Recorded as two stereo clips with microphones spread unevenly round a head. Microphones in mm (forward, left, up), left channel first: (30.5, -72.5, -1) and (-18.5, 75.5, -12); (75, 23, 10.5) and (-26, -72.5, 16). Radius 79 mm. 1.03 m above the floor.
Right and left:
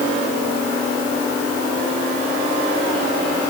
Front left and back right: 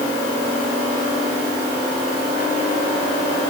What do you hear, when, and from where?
Only background noise.